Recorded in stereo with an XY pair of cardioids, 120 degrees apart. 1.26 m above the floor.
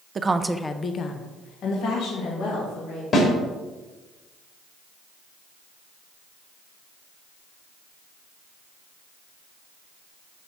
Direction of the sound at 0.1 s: 35° right.